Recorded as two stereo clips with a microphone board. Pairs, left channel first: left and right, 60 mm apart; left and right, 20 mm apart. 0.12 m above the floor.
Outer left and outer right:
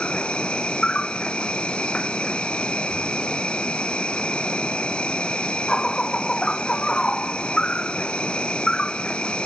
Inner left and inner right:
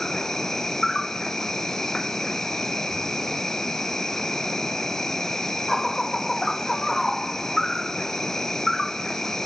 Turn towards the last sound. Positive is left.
turn(degrees=20)  # may be behind; listen again after turning